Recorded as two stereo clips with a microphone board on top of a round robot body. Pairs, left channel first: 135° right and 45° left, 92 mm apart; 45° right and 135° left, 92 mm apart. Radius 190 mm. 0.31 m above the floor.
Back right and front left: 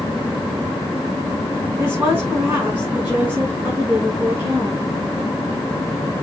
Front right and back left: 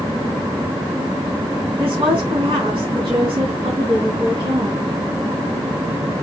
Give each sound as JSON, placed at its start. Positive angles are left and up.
{"t": 1.8, "sound": "a woman speaking", "azimuth_deg": 115, "distance_m": 5.0}